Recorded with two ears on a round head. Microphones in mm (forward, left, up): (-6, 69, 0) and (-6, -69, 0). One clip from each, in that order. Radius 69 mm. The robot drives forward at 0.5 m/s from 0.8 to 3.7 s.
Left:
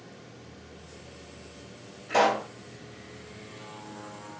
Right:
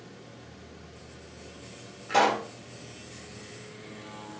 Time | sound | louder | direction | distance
2.1 | a pop | even | 25° right (ahead or behind) | 1.3 m